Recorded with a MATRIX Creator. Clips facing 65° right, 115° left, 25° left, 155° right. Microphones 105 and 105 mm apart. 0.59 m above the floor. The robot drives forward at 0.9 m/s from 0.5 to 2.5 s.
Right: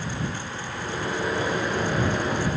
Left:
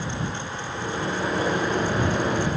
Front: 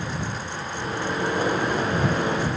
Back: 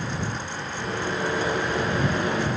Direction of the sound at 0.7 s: 55° left.